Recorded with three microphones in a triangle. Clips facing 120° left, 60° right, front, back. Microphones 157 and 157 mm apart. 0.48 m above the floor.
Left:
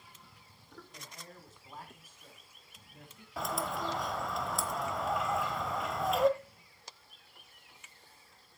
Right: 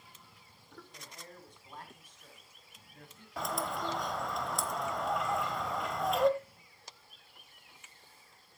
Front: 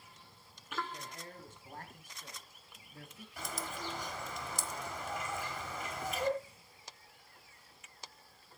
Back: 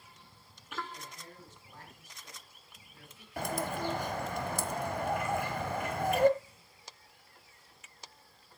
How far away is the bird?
About 1.1 m.